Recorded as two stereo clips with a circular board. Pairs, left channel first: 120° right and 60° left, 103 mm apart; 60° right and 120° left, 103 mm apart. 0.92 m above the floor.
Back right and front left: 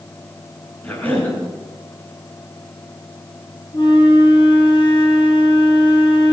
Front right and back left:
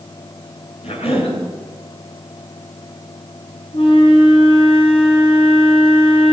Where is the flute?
80° right, 6 m.